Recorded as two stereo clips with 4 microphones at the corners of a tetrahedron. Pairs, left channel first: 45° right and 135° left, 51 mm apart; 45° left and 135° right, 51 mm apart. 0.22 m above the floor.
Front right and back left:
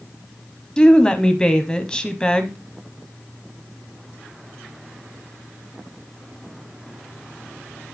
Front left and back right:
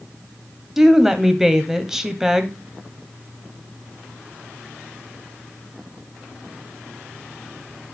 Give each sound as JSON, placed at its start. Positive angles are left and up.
{"t": 0.8, "sound": "a woman speaking", "azimuth_deg": -70, "distance_m": 1.0}